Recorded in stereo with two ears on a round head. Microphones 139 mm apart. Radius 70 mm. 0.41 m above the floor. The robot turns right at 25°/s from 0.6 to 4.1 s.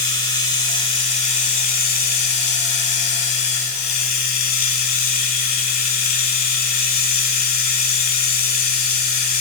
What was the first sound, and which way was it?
Running water, 30° left.